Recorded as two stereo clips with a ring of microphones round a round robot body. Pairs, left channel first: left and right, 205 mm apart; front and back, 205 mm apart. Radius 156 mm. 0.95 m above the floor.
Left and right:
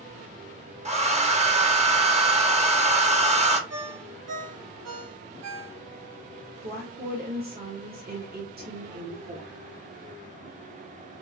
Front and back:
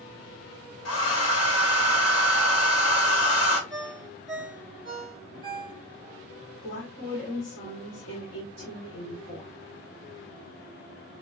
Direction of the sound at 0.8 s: 30° right.